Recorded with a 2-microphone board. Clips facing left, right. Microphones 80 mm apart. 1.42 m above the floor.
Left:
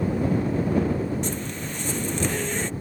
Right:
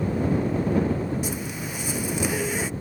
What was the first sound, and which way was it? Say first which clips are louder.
A zipper: even; 10° right (ahead or behind).